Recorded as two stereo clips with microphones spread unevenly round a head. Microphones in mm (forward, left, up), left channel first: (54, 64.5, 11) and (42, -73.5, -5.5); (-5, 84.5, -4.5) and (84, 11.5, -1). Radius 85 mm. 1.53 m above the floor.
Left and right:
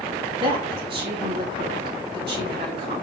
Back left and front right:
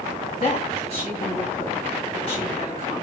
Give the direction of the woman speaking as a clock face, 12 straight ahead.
5 o'clock.